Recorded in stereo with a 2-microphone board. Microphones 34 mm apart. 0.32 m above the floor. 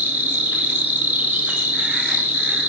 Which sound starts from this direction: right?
An insect, at 0.0 s.